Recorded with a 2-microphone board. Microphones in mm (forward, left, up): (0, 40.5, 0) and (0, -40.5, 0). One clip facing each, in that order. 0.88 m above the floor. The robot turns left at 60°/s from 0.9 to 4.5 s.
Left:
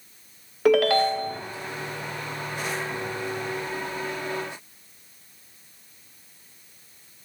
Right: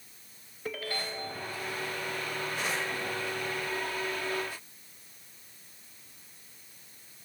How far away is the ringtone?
About 0.7 m.